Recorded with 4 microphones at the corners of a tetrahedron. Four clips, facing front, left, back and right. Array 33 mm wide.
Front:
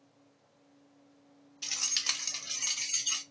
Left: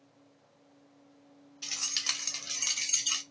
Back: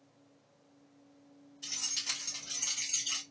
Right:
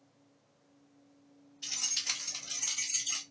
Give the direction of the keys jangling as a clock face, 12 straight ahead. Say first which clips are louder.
Left 2 dB, front 4 dB; 11 o'clock.